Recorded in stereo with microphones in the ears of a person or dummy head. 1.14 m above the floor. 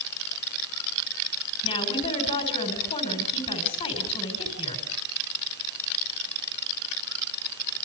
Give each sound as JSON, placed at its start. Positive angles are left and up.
{"t": 1.6, "sound": "a woman speaking", "side_deg": 30, "distance_m": 4.0}